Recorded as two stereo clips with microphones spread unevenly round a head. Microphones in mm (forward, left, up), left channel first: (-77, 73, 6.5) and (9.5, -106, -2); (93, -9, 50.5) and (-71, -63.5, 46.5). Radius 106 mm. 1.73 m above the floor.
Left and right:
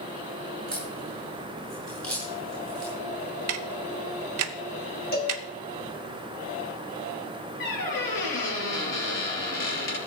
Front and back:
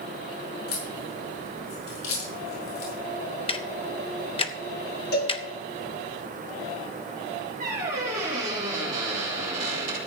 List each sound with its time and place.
0.7 s a crack: 30° left, 6 m
3.5 s ticking: 40° right, 0.8 m
5.1 s a cowbell: 65° left, 2.5 m
7.6 s a squeak: 140° left, 5.5 m